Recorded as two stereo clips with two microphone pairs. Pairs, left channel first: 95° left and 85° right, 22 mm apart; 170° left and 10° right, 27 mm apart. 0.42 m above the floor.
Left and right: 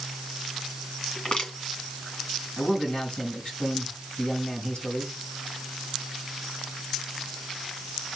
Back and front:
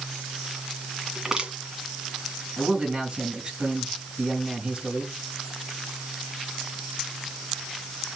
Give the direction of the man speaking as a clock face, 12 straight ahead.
10 o'clock.